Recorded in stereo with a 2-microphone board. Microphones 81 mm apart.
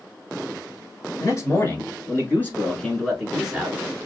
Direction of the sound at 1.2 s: 45° left (ahead or behind).